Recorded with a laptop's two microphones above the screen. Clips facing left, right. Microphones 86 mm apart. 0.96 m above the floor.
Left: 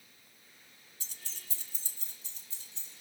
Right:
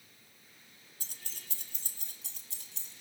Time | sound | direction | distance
1.0 | keys jangling | 50° right (ahead or behind) | 1.5 m